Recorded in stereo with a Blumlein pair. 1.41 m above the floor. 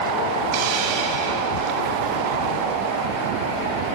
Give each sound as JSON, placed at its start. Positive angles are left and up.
{"t": 0.5, "sound": "a hiss", "azimuth_deg": -45, "distance_m": 3.0}